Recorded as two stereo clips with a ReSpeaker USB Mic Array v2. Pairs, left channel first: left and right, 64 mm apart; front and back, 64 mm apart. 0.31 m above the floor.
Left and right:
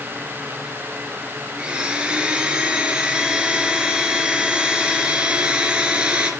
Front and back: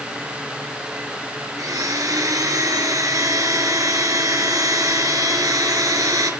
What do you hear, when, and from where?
1.6 s a blender: 160° right, 3.5 m